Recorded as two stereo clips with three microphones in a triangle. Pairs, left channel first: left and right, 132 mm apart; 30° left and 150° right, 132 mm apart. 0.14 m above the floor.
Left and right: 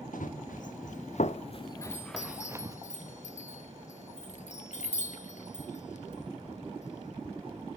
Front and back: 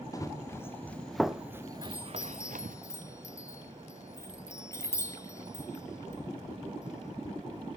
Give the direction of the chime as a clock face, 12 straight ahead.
9 o'clock.